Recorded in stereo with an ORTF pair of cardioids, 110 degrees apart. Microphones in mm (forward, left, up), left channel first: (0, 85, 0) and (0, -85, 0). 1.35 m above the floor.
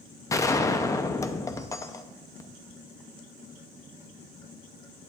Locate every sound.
0.3 s a gunshot: 20° left, 0.6 m